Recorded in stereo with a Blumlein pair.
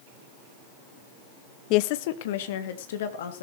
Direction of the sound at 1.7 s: 40° left.